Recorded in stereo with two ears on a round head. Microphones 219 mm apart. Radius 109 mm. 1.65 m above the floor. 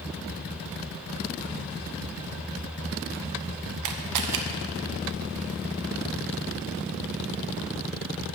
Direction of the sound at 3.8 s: 85° right.